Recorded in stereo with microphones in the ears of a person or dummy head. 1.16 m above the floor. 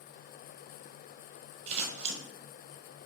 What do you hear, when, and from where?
1.7 s scissors: 30° right (ahead or behind), 0.9 m